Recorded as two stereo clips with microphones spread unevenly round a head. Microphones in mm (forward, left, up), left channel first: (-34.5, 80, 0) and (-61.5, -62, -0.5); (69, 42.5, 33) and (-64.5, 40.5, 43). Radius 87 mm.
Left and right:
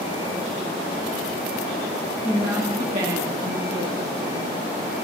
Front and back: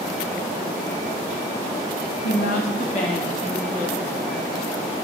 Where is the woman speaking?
15° right, 1.5 m; by 4.5 s 70° right, 3.5 m.